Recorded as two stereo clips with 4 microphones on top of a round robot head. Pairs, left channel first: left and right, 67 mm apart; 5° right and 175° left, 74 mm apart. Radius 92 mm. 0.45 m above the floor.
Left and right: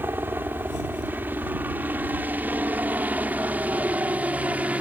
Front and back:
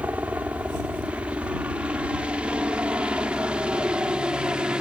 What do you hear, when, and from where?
0.0 s a helicopter: 125° right